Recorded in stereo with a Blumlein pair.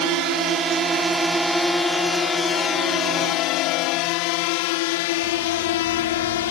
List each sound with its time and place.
0.0 s a drone: 40° right; by 6.5 s 60° left